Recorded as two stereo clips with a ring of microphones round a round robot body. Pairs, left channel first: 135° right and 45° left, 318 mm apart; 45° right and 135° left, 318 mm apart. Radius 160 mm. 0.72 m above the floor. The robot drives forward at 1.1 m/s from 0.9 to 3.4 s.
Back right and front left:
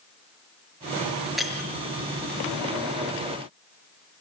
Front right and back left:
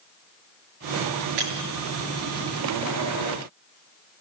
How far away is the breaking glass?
About 5 m.